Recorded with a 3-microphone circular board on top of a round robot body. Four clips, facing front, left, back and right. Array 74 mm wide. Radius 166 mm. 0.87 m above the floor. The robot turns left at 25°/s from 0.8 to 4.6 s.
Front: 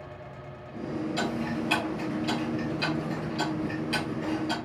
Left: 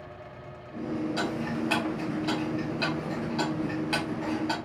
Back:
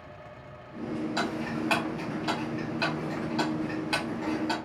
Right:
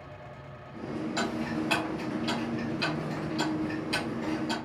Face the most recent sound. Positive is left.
turn(degrees=110)